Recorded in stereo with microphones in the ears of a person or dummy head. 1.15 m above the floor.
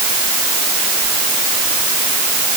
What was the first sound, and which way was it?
Only background noise.